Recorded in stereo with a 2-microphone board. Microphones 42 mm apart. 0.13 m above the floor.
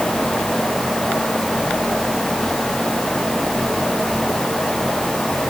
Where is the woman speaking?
No woman speaking in this recording.